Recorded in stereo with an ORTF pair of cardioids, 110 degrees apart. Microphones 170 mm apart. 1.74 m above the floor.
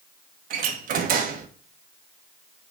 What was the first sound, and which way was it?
A door slam, 55° right.